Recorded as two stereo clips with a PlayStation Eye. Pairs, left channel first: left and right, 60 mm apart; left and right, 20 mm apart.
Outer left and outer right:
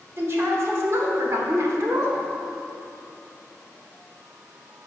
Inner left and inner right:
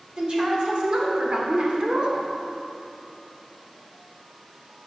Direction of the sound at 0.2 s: 50° right (ahead or behind).